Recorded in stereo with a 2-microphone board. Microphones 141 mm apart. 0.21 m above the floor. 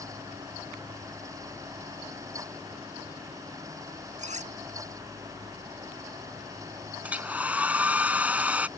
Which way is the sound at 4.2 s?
55° right (ahead or behind).